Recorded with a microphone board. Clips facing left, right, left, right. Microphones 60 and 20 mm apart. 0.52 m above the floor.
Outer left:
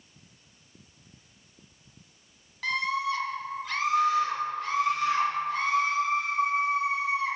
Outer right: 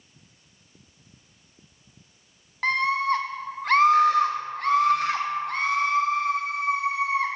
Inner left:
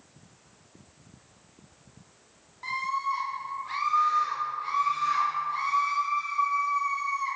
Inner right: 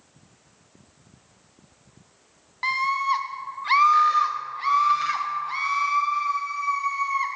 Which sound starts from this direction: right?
A scream, at 2.6 s.